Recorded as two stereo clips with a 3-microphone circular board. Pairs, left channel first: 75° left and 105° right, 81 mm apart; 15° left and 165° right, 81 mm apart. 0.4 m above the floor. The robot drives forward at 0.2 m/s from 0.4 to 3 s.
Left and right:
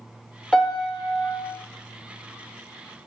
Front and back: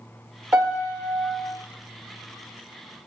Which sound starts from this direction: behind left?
A piano, at 0.5 s.